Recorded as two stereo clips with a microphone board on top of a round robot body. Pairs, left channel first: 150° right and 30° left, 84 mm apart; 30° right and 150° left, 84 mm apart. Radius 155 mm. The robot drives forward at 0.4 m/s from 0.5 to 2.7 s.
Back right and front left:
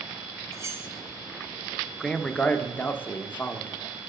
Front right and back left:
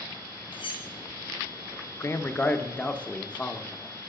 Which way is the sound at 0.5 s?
25° right.